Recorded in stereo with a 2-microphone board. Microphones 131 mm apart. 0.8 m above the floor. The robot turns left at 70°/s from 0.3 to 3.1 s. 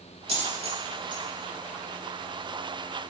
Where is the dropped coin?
45° right (ahead or behind), 0.8 m; by 1.2 s 35° right (ahead or behind), 0.8 m.